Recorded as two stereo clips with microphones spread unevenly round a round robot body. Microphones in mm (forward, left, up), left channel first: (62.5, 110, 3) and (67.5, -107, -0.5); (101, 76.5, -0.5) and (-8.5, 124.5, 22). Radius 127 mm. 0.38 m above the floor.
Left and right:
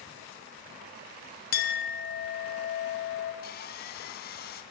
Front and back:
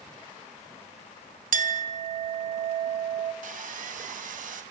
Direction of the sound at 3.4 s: 145° left.